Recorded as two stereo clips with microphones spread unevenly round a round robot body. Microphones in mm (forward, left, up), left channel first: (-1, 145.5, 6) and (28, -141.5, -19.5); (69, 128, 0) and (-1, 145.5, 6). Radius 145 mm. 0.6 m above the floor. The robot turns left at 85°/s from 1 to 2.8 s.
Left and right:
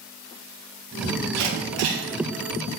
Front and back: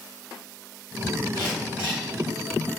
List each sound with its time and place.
1.3 s a camera shutter: 80° right, 4.5 m; by 2.0 s 140° right, 4.5 m